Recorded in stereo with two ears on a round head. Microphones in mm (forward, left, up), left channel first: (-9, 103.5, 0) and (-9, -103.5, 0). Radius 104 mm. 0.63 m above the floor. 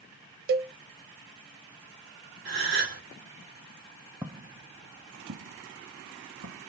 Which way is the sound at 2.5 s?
50° right (ahead or behind).